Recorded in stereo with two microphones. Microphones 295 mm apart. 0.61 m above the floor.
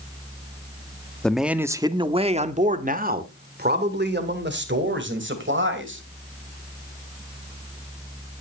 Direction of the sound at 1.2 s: 5° left (ahead or behind).